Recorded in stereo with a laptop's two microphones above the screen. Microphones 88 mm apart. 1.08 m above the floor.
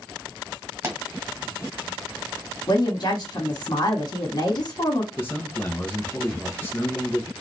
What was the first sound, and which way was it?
A pop, 30° right (ahead or behind).